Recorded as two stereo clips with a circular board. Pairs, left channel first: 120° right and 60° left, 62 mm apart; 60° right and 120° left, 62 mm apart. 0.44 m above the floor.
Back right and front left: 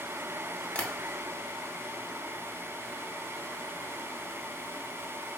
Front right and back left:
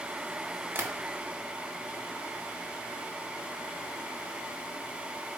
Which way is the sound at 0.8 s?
175° left.